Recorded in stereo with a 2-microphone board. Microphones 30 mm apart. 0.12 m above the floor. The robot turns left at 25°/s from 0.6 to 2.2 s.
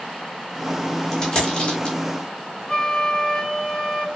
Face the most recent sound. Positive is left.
turn(degrees=30)  # may be behind; listen again after turning